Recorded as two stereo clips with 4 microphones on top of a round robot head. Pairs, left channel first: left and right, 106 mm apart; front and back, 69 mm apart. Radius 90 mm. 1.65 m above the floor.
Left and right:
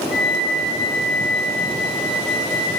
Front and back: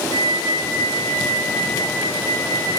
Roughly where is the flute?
Ahead.